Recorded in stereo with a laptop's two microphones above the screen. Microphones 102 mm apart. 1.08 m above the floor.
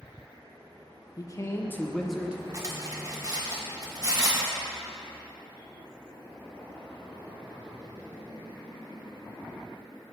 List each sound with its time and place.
1.2 s a man speaking: 40° left (ahead or behind), 0.7 m; by 2.4 s 15° right (ahead or behind), 0.6 m
2.5 s cutlery clinking: 35° right (ahead or behind), 1.7 m